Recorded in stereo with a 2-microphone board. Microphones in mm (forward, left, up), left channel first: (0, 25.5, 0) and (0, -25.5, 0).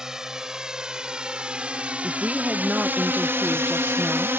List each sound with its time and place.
0.0 s a drone: 10° right (ahead or behind); by 4.4 s 50° right (ahead or behind)
2.0 s a woman speaking: 30° right (ahead or behind)